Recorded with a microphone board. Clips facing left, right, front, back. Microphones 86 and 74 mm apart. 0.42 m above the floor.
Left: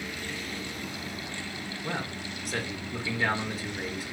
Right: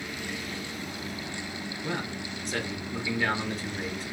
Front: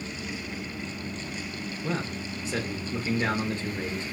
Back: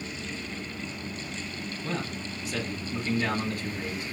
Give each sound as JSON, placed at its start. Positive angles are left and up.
{"t": 1.8, "sound": "a man speaking", "azimuth_deg": 10, "distance_m": 0.8}